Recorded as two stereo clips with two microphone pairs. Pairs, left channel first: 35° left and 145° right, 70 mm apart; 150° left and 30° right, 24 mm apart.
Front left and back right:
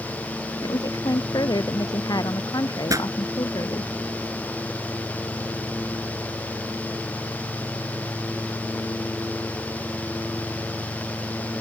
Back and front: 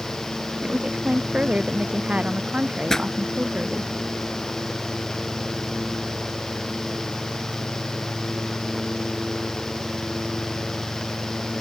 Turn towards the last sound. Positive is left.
turn(degrees=-145)